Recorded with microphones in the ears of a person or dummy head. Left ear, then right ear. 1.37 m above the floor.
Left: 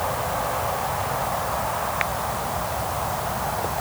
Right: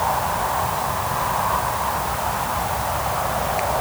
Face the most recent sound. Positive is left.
No sound to turn to.